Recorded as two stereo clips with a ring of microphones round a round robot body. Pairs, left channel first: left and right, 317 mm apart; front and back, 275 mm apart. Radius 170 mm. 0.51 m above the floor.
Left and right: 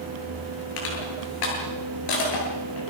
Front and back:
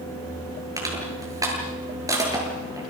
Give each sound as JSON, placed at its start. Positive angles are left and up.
{"t": 0.8, "sound": "crushing", "azimuth_deg": 100, "distance_m": 9.0}